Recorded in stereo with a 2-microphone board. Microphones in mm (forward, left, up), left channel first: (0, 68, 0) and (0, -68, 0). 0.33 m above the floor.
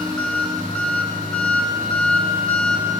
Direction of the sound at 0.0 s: 5° left (ahead or behind).